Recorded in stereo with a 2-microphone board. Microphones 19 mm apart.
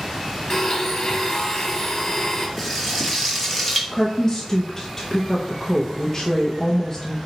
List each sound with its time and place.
0.5 s a blender: 30° left (ahead or behind), 1.1 m
2.6 s frying: centre (ahead or behind), 1.2 m
3.9 s a woman speaking: 25° left (ahead or behind), 0.6 m